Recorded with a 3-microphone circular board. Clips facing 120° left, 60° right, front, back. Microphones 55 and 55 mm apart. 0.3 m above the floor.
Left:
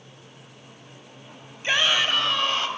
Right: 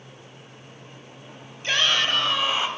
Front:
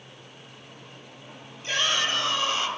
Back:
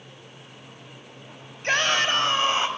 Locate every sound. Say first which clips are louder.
1.6 s a shout: left 1 dB, back 4 dB; 170° right, 1.5 m; by 2.7 s 130° right, 1.3 m